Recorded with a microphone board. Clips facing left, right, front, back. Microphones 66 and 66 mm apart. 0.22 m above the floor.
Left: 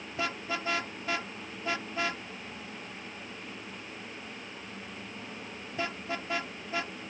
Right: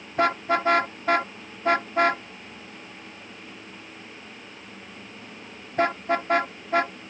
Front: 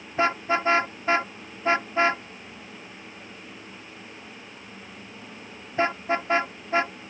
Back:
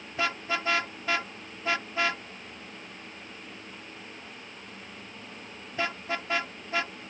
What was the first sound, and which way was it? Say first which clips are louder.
A car horn: right 12 dB, front 7 dB; 60° right.